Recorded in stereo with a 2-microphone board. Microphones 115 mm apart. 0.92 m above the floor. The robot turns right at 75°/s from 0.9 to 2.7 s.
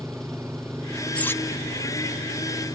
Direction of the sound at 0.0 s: 5° left.